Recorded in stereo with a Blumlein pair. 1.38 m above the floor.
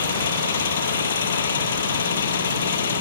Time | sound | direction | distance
0.0 | an engine running | 65° left | ?